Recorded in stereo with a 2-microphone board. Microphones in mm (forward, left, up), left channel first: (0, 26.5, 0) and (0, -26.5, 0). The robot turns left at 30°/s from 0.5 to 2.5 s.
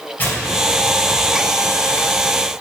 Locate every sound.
0.2 s tearing paper: 40° left (ahead or behind), 3 m; by 2.0 s centre (ahead or behind), 3 m